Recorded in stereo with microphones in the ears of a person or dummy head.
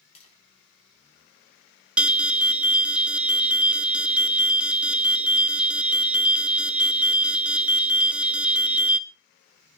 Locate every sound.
0.1 s tapping: 35° left (ahead or behind), 6.5 m
2.0 s an alarm: 5° right (ahead or behind), 0.9 m